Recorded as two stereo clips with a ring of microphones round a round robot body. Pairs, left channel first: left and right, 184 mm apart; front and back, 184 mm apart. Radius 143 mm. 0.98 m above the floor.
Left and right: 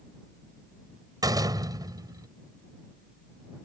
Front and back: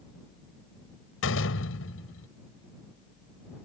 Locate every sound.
1.2 s a door slam: 20° right